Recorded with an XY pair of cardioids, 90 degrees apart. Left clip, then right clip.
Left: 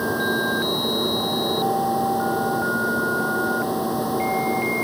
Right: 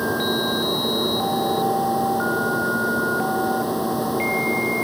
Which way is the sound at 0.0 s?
5° right.